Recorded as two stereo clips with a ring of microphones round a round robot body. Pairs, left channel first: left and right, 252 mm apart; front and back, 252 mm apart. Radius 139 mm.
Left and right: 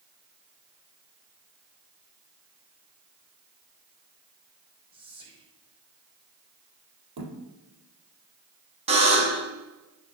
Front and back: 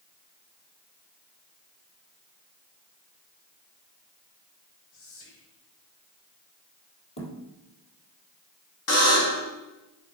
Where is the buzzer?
25° right, 3 m.